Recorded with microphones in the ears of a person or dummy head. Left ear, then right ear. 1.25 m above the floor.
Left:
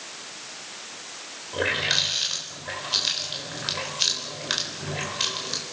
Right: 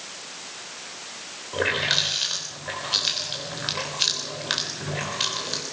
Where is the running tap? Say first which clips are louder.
Right 1 dB; 5° right (ahead or behind), 3.5 m.